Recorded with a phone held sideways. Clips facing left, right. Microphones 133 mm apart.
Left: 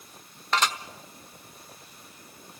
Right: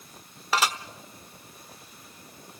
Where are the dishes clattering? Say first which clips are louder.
Even; 5° right (ahead or behind), 1.1 m.